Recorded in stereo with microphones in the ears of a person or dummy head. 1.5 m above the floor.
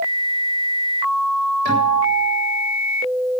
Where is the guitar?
60° right (ahead or behind), 8 m.